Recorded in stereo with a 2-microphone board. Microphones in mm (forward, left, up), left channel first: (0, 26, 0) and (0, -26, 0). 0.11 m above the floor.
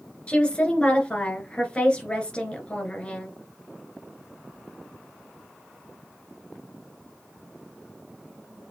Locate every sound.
0.3 s a woman speaking: 25° left (ahead or behind), 1.8 m